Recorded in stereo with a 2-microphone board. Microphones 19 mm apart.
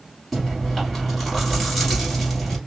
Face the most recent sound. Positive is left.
turn(degrees=5)  # may be behind; listen again after turning